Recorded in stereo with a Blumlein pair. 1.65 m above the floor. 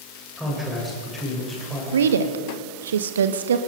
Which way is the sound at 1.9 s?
65° right.